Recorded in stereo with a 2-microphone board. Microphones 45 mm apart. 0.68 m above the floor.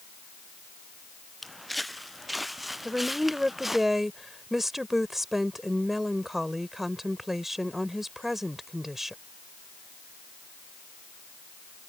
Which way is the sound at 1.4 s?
Centre (ahead or behind).